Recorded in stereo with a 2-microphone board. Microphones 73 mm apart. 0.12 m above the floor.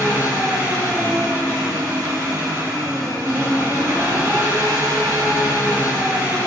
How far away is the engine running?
About 1.9 m.